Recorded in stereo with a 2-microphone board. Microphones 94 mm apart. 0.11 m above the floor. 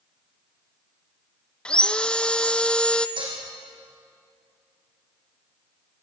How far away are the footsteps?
I don't hear footsteps.